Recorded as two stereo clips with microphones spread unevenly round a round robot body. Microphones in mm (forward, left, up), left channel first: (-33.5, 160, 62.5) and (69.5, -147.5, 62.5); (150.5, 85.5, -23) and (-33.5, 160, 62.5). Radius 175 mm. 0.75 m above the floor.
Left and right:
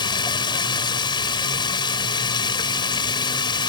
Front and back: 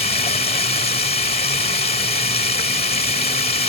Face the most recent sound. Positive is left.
turn(degrees=30)